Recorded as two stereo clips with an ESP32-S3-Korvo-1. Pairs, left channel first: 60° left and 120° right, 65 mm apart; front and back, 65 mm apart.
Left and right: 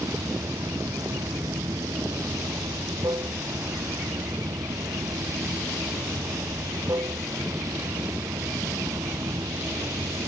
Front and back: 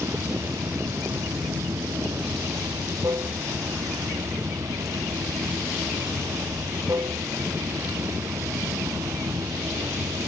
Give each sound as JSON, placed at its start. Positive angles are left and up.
{"t": 0.0, "sound": "running water", "azimuth_deg": -145}